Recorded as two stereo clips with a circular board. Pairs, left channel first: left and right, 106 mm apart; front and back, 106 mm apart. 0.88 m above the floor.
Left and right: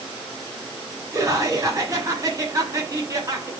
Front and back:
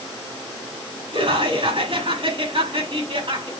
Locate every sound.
1.1 s laughter: 150° right, 6 m